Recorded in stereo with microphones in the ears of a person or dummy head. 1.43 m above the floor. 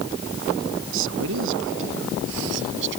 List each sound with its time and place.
0.9 s a man speaking: 75° right (ahead or behind); by 3.0 s 70° right (ahead or behind)